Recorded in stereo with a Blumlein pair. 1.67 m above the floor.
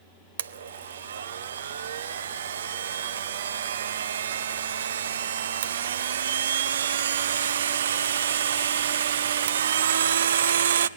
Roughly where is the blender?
Ahead right.